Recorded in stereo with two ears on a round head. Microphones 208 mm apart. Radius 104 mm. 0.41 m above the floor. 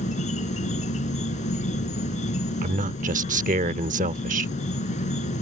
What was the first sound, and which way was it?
An insect, 30° left (ahead or behind).